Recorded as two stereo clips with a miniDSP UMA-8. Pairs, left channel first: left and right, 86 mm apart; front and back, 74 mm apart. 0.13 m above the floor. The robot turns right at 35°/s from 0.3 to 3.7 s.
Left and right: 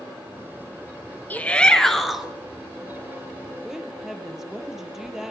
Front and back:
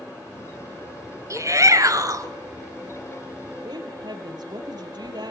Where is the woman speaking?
175° right, 3 m.